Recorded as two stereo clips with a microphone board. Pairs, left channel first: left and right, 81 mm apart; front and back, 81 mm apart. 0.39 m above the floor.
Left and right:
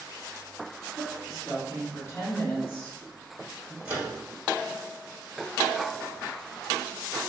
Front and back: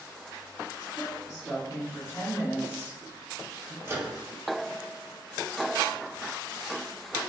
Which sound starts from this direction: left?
A woman speaking, at 1.0 s.